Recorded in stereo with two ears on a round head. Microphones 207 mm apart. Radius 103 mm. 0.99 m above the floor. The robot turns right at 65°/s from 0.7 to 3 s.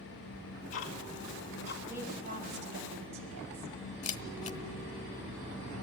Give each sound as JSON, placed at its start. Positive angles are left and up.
{"t": 0.3, "sound": "ticking", "side_deg": 55, "distance_m": 2.0}
{"t": 1.9, "sound": "a woman speaking", "azimuth_deg": -175, "distance_m": 4.5}
{"t": 4.0, "sound": "a camera shutter", "side_deg": 30, "distance_m": 1.0}